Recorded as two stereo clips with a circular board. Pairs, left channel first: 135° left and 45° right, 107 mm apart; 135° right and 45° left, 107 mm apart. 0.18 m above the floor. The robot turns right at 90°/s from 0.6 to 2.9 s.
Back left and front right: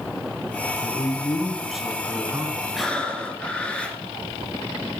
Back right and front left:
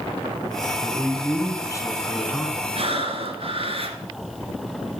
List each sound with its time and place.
0.8 s a man speaking: 145° left, 1.7 m; by 2.6 s 50° right, 1.7 m
2.8 s breathing: 40° left, 1.7 m; by 4.0 s 55° left, 1.7 m